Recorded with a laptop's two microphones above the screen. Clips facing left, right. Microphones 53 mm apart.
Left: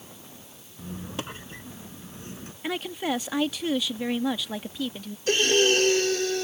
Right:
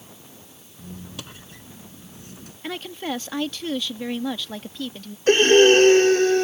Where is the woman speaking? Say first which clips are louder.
Left 1 dB; 10° left (ahead or behind).